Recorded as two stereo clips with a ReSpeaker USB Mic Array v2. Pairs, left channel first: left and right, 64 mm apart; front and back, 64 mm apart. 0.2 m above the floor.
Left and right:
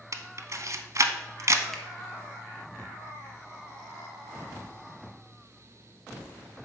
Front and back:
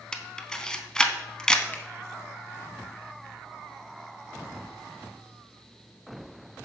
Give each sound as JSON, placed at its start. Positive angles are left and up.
{"t": 0.1, "sound": "a camera shutter", "azimuth_deg": -75, "distance_m": 0.5}
{"t": 1.7, "sound": "a finger snap", "azimuth_deg": 15, "distance_m": 0.9}